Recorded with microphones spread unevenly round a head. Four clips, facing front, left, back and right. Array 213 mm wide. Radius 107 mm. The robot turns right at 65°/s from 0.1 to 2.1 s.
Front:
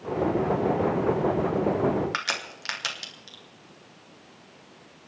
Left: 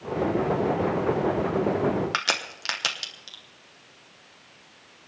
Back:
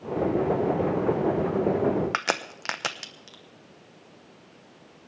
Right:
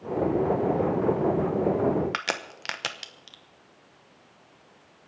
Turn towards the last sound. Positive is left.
turn(degrees=-175)